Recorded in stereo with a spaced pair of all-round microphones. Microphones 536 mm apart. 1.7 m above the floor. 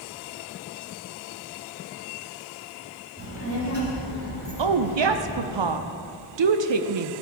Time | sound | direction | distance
3.2 | a child speaking | 15° left (ahead or behind) | 2.5 m
4.6 | a woman speaking | 55° right (ahead or behind) | 0.5 m